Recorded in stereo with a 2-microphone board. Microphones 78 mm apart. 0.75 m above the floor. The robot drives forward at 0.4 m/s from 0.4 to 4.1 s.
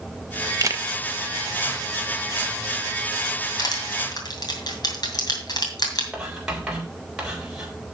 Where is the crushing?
50° left (ahead or behind), 2.5 m; by 6.0 s 55° left (ahead or behind), 2.5 m.